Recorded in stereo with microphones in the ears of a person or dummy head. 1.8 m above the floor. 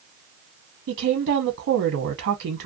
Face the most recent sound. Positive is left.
turn(degrees=-65)  # may be behind; listen again after turning